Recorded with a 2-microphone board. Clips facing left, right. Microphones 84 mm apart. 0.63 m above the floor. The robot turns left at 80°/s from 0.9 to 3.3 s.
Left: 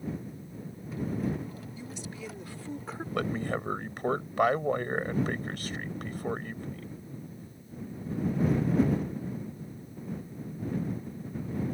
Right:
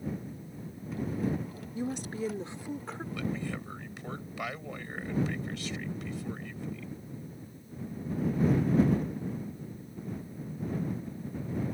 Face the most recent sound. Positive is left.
turn(degrees=50)  # may be behind; listen again after turning